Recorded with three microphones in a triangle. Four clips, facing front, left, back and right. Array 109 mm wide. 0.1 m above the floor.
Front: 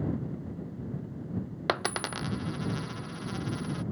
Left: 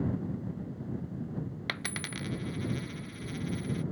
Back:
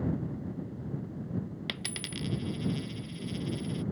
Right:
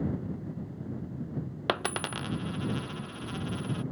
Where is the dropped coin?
40° right.